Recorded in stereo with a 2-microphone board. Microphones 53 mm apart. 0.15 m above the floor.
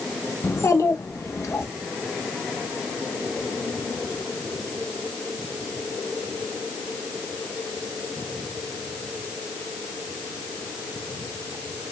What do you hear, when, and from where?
0.4 s a child speaking: 60° left (ahead or behind), 1.4 m; by 1.7 s 70° left (ahead or behind), 2 m